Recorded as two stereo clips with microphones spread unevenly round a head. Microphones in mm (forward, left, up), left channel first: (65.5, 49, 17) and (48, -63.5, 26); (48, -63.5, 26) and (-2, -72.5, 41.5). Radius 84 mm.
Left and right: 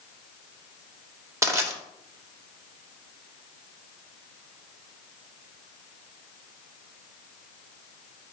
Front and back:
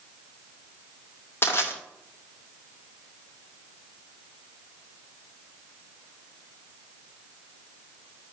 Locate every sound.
1.4 s crushing: 35° right, 2.5 m